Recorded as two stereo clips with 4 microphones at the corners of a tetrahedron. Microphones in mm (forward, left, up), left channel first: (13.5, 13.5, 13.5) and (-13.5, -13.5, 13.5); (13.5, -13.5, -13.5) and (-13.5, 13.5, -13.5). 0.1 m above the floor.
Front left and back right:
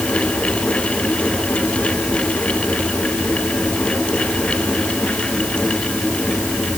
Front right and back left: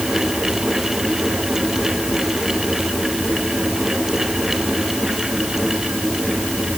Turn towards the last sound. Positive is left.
No sound to turn to.